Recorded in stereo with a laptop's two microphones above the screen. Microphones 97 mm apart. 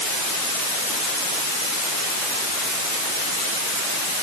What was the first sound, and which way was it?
Only background noise.